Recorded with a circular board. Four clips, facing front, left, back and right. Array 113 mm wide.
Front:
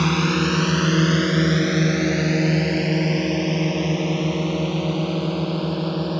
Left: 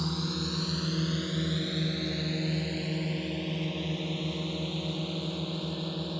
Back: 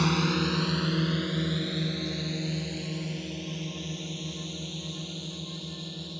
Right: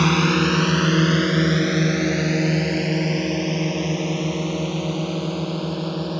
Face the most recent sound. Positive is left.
turn(degrees=-30)